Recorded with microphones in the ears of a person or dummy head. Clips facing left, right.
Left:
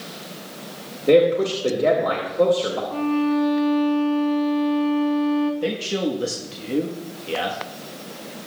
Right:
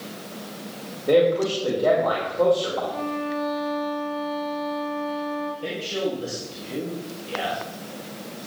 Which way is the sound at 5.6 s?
80° left.